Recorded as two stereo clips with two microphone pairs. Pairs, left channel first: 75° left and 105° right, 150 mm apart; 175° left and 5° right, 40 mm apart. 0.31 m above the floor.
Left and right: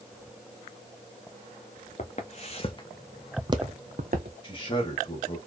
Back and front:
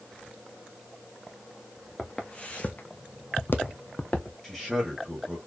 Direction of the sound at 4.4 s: 90° left.